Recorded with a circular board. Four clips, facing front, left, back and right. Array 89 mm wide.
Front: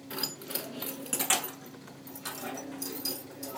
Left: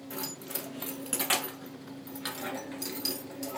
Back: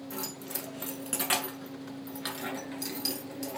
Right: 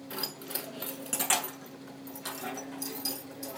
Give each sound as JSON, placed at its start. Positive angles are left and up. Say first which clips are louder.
{"t": 0.1, "sound": "keys jangling", "louder": "left 1 dB, front 3 dB", "azimuth_deg": -30, "distance_m": 1.0}